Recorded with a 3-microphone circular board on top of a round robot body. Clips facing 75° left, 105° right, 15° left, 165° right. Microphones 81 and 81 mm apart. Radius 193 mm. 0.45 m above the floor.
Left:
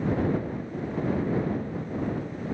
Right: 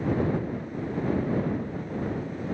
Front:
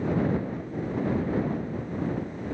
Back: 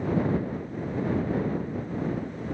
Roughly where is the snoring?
No snoring in this recording.